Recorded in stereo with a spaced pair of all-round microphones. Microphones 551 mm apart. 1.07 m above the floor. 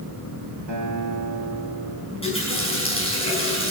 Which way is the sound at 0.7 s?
50° right (ahead or behind).